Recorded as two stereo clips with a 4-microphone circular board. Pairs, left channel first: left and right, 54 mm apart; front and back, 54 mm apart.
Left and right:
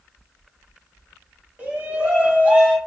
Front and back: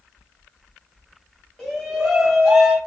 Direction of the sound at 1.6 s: 80° right.